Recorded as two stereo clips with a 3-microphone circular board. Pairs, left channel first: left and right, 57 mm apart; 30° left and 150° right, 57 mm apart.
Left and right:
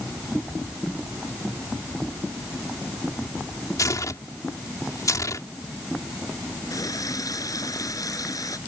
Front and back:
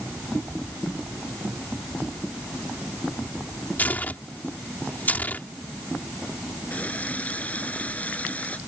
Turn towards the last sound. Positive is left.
turn(degrees=95)